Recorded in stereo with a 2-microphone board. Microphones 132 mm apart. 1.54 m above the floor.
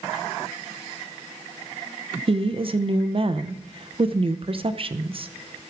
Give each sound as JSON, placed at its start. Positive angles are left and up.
{"t": 2.3, "sound": "a woman speaking", "side_deg": -45, "distance_m": 0.6}